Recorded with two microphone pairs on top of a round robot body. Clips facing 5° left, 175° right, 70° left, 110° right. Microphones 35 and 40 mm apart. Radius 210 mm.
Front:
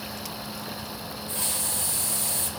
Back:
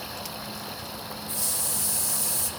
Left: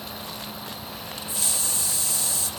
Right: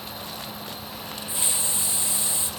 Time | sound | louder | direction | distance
1.3 | a hiss | front 4 dB, even | 40° right | 1.0 m